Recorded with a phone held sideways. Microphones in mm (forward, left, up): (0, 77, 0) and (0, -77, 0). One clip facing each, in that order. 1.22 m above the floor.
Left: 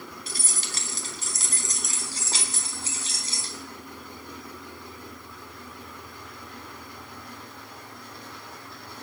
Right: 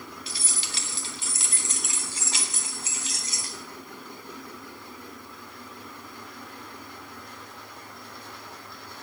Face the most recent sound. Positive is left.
turn(degrees=30)  # may be behind; listen again after turning